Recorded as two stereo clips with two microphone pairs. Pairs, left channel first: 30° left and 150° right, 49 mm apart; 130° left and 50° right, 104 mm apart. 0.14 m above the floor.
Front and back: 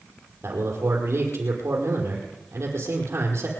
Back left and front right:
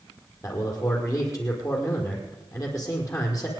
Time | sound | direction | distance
0.4 | a man speaking | 175° right | 5 m